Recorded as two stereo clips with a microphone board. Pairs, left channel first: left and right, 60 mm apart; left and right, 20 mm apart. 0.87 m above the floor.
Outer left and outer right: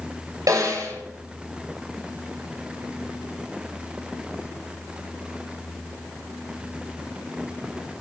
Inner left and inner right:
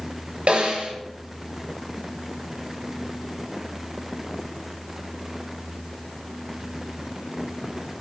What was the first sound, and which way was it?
A snare drum, 70° right (ahead or behind).